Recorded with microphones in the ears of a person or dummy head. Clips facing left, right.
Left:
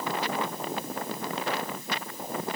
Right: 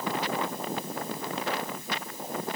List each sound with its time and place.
Only background noise.